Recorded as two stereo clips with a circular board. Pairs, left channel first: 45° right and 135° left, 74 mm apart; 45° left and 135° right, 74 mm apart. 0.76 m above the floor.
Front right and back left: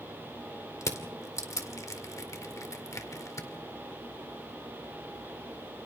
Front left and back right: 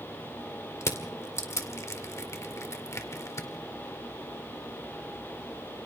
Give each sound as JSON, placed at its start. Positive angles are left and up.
{"t": 0.8, "sound": "crushing", "azimuth_deg": 0, "distance_m": 2.0}